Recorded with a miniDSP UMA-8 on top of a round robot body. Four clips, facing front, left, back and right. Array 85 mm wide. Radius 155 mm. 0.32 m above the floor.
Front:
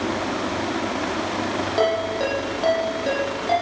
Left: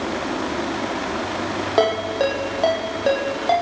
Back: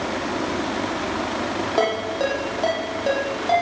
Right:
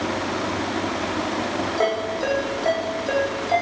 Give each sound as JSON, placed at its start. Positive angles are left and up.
{"t": 1.8, "sound": "a ringtone", "azimuth_deg": 100, "distance_m": 9.5}